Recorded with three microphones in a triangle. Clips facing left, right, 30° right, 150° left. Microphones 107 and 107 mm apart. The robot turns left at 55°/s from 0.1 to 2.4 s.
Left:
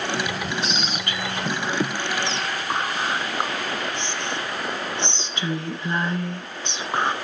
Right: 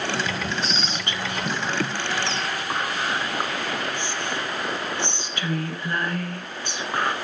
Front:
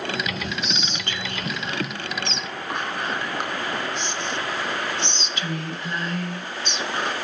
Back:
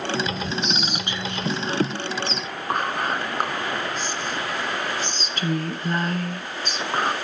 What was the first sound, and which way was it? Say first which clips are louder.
Whispering: left 1 dB, back 3 dB; 115° right.